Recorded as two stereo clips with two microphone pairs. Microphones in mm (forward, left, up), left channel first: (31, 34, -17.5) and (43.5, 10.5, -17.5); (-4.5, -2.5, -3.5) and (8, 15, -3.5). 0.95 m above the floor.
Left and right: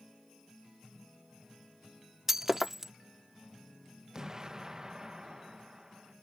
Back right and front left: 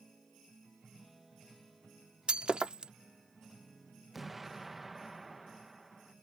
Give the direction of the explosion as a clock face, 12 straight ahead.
1 o'clock.